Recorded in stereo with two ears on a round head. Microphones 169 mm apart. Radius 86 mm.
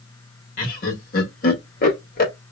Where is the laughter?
50° left (ahead or behind), 1.7 m.